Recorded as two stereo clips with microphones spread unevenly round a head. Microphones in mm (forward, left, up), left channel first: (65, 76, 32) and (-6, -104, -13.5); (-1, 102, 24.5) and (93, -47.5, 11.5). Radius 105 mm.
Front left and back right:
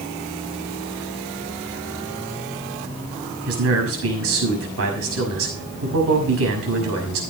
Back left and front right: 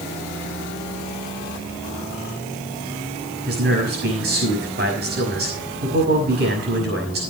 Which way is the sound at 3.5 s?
105° right.